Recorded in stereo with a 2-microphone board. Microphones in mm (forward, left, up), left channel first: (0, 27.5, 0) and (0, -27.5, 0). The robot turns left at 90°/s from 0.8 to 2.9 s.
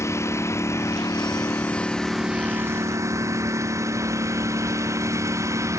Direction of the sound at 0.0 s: 120° left.